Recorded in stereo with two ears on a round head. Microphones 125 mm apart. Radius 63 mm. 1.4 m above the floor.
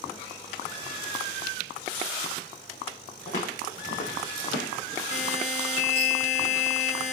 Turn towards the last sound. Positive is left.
turn(degrees=50)  # may be behind; listen again after turning